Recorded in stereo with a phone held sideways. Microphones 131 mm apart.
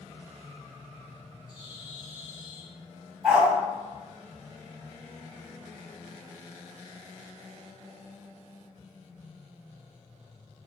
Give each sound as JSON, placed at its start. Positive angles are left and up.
{"t": 1.5, "sound": "a bird", "side_deg": 35, "distance_m": 3.5}
{"t": 3.2, "sound": "a dog barking", "side_deg": -5, "distance_m": 3.0}